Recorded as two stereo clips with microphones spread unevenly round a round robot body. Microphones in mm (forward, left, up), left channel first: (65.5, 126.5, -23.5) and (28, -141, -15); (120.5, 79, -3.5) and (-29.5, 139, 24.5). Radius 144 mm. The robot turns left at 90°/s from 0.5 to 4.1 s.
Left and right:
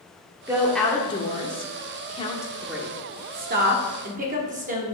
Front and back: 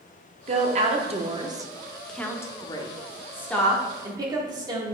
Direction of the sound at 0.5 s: 170° right.